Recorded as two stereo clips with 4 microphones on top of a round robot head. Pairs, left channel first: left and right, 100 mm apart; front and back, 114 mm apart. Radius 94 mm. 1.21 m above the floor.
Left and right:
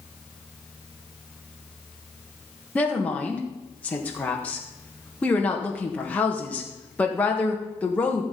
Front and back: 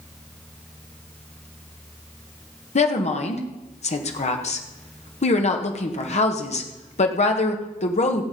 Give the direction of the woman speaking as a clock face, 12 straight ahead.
12 o'clock.